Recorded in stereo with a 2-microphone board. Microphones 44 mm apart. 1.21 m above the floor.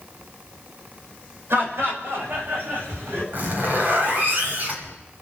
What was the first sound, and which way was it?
Laughter, 65° right (ahead or behind).